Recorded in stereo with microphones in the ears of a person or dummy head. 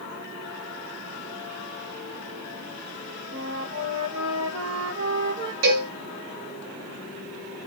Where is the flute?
75° right (ahead or behind), 3 m.